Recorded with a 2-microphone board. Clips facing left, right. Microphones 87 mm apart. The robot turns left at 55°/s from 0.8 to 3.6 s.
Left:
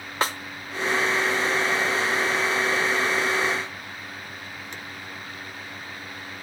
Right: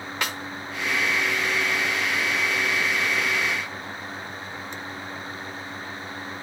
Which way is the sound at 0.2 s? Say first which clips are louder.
Left 5 dB; 35° left (ahead or behind).